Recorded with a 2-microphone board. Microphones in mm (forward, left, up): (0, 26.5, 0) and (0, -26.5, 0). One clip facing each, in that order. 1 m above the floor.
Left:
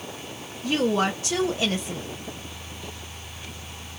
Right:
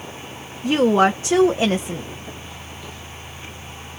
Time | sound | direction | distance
0.6 | a woman speaking | 30° right (ahead or behind) | 0.7 m